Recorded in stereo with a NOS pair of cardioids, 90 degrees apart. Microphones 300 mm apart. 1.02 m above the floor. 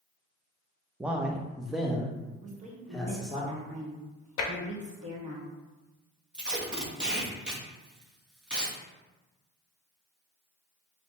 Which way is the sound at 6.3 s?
5° right.